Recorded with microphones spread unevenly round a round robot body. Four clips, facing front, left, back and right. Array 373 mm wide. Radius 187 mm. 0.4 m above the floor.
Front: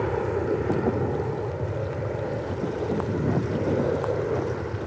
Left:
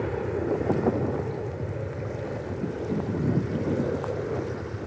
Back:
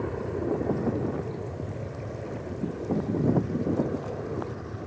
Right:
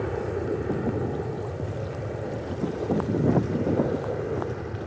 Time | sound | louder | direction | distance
0.0 | an aircraft | even, front 5 dB | 10° left | ?